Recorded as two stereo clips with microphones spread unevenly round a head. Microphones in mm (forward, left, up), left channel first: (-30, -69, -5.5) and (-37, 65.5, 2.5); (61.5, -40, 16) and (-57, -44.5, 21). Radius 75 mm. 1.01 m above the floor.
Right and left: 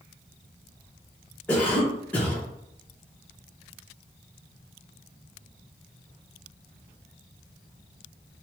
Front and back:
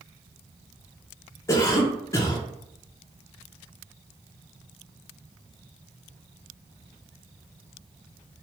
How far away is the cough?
About 0.7 m.